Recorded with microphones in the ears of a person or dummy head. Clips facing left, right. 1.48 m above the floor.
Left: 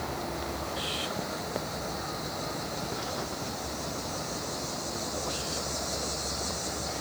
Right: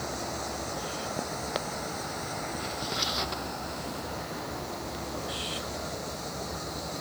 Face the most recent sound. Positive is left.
No sound to turn to.